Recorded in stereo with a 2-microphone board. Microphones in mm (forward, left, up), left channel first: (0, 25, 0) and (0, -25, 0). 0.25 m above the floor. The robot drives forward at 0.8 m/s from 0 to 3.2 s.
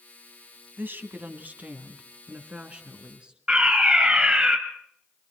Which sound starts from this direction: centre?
A fire alarm, at 3.5 s.